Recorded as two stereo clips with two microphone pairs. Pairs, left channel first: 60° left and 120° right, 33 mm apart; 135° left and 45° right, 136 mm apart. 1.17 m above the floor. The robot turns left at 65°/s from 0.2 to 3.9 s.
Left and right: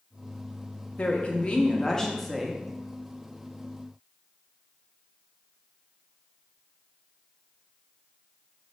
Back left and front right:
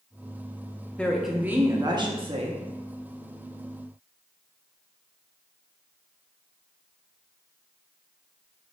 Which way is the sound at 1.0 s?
60° left.